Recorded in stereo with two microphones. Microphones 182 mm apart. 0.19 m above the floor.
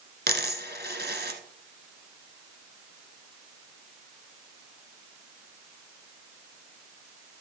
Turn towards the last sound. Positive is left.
turn(degrees=-65)  # may be behind; listen again after turning